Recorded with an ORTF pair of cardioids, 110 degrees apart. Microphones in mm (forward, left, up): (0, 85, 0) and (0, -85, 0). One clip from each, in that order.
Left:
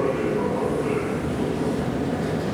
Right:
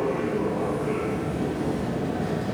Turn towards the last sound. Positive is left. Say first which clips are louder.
# left 3 dB
turn(degrees=40)